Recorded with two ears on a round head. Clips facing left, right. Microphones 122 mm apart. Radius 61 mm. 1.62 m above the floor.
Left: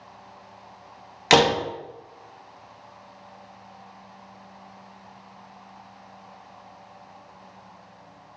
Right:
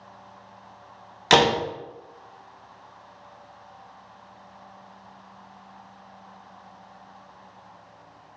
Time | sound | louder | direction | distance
1.3 | a door slam | left 1 dB | 5° left (ahead or behind) | 0.8 m